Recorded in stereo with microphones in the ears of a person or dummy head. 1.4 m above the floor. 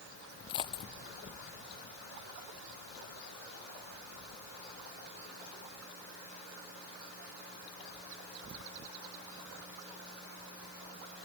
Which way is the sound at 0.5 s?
25° left (ahead or behind).